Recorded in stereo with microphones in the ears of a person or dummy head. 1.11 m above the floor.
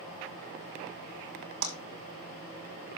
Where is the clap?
85° right, 6 m.